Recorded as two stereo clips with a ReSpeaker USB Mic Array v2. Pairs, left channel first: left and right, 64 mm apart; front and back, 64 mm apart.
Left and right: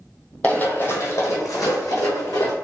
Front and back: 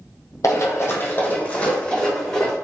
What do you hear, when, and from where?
0.4 s running footsteps: 25° left, 0.7 m; by 2.5 s 80° left, 1.4 m